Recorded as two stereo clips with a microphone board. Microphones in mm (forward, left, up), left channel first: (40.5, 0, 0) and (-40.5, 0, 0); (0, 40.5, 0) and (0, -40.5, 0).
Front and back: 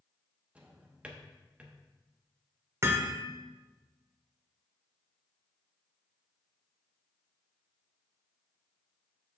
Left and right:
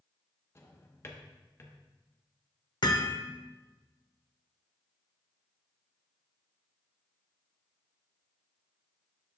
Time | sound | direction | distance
0.6 | a drawer | 115° left | 0.8 m
2.8 | hammering | 125° left | 0.8 m